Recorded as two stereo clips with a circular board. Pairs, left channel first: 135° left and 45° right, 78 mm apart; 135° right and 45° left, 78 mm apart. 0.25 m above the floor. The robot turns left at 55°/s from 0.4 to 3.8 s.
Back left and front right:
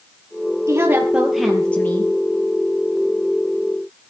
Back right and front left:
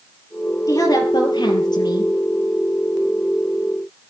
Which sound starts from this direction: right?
A woman speaking, at 0.7 s.